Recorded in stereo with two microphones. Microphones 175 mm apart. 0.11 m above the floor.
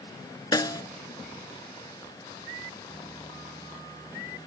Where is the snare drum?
25° left (ahead or behind), 0.5 m.